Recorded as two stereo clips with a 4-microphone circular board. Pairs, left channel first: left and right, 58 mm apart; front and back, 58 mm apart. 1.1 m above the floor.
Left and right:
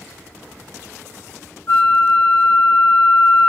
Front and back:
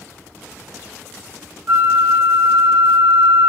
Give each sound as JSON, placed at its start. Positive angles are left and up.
{"t": 1.7, "sound": "a flute", "azimuth_deg": 135, "distance_m": 0.8}